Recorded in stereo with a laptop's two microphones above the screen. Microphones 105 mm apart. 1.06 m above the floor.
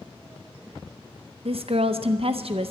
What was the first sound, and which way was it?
A woman speaking, 65° right (ahead or behind).